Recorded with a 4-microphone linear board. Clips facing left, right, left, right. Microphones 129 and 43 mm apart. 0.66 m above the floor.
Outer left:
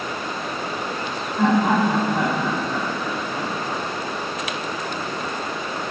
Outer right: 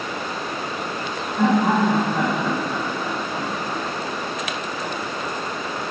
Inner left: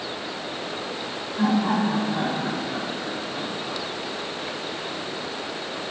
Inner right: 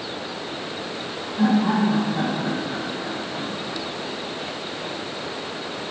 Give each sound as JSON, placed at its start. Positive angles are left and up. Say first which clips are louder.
{"t": 1.4, "sound": "laughter", "louder": "even, inner right 2 dB", "side_deg": -10, "distance_m": 1.0}